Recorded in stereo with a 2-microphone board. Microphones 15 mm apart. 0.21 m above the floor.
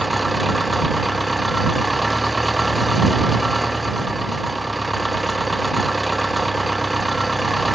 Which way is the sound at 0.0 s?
5° left (ahead or behind).